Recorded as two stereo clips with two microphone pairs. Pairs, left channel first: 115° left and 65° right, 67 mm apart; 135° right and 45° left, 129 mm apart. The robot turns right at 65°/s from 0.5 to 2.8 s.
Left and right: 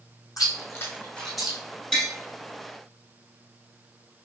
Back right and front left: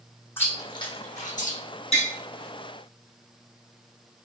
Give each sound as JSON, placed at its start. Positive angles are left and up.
{"t": 0.4, "sound": "chewing", "azimuth_deg": 150, "distance_m": 1.0}
{"t": 1.9, "sound": "tapping", "azimuth_deg": -165, "distance_m": 1.6}